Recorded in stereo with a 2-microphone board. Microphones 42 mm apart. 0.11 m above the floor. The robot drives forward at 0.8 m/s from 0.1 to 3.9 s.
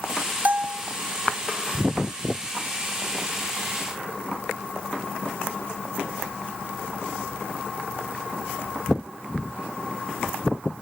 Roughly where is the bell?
Right.